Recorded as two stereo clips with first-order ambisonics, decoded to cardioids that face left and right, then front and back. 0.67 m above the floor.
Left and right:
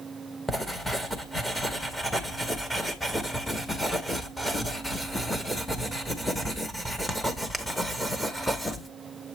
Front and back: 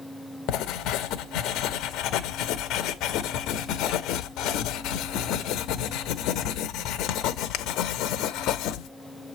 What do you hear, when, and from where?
0.5 s writing: 5° left, 0.8 m